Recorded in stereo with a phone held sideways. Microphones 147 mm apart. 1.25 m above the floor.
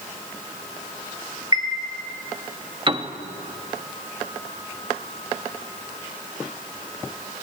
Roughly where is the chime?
Right.